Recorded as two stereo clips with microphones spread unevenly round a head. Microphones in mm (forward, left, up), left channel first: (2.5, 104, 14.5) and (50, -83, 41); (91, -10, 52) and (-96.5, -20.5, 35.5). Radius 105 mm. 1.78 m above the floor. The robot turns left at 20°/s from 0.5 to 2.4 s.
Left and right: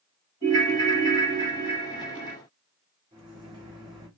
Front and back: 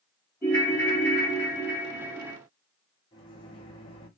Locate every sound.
0.4 s a ringtone: 70° right, 1.3 m; by 2.4 s 110° right, 1.3 m
3.1 s a microwave: 40° right, 0.9 m